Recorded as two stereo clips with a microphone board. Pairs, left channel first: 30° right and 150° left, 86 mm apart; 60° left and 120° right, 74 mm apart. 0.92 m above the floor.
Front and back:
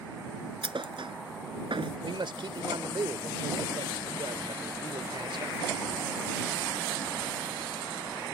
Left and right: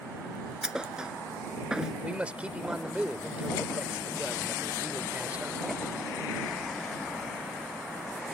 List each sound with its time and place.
0.6 s a thud: 160° left
2.0 s a man speaking: 165° left